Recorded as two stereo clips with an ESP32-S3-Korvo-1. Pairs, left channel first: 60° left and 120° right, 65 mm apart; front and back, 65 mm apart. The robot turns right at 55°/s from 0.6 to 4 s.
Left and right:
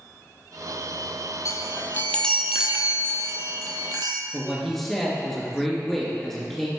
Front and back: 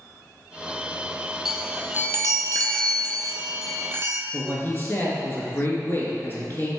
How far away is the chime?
About 0.6 m.